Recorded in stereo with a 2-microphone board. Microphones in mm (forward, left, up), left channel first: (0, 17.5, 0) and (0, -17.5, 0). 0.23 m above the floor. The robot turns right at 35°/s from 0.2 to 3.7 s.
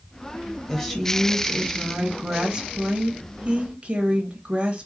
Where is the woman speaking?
Centre (ahead or behind), 1.1 m; by 4.9 s 25° right (ahead or behind), 1.1 m.